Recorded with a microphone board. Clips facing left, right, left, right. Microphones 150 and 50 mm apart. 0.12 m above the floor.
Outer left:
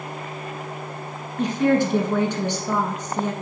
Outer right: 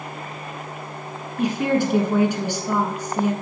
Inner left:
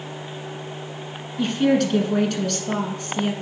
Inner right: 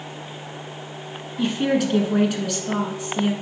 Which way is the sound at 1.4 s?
10° right (ahead or behind).